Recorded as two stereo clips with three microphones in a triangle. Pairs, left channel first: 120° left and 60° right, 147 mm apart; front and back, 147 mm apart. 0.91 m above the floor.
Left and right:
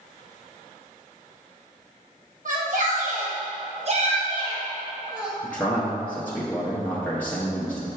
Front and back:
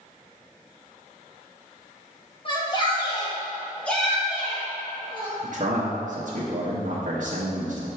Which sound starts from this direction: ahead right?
A shout, at 2.5 s.